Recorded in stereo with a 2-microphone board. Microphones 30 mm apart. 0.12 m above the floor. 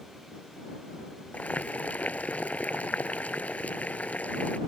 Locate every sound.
1.3 s boiling: 55° left (ahead or behind)